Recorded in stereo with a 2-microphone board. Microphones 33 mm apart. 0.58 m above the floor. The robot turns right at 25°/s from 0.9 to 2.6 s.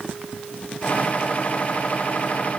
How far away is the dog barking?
No dog barking in this recording.